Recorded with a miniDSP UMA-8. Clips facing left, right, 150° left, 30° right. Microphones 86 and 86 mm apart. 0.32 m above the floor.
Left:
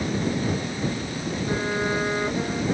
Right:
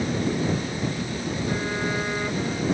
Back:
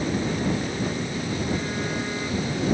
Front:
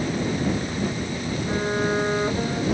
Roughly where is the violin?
Ahead.